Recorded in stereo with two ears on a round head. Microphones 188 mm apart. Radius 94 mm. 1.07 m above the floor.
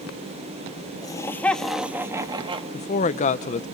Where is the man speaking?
35° left (ahead or behind), 0.7 m.